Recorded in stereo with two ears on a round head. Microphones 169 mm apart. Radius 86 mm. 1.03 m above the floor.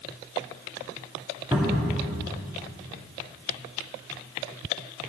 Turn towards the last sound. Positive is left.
turn(degrees=-15)  # may be behind; listen again after turning